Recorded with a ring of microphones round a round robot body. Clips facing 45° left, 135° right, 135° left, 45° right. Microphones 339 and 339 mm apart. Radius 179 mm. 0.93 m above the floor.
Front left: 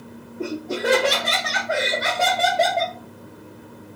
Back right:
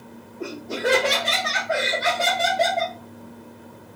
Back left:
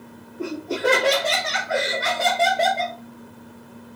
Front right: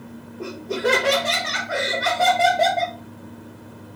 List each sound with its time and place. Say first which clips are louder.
0.4 s laughter: front left 2 dB, even; 95° left, 1.9 m; by 3.0 s 60° left, 0.8 m